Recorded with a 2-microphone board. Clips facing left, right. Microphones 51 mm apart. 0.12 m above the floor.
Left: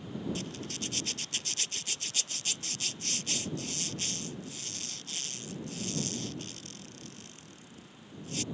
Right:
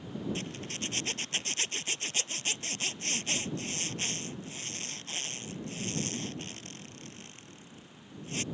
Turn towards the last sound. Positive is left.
turn(degrees=-35)  # may be behind; listen again after turning